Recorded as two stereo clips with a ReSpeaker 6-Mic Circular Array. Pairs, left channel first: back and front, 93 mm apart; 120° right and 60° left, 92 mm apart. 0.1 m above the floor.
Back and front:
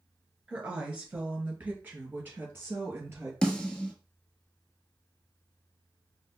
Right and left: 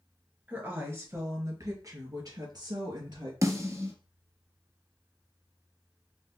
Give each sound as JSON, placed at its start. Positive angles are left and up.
{"t": 0.5, "sound": "a woman speaking", "azimuth_deg": 55, "distance_m": 1.7}
{"t": 3.4, "sound": "a snare drum", "azimuth_deg": 100, "distance_m": 1.0}